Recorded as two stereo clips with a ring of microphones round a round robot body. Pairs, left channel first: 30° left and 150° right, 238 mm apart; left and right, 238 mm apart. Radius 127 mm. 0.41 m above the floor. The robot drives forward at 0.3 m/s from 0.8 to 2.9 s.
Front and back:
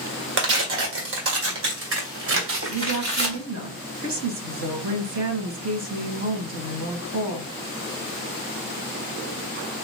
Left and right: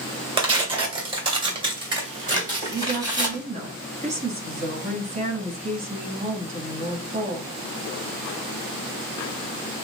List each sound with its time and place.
0.4 s tearing paper: 155° right, 2.0 m; by 3.4 s 160° right, 2.5 m
2.7 s a woman speaking: 150° right, 3 m